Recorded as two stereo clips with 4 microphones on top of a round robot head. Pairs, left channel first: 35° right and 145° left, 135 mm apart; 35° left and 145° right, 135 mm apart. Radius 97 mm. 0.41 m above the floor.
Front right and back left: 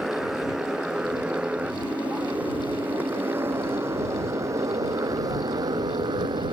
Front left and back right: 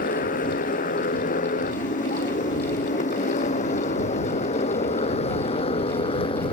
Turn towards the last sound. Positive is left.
turn(degrees=85)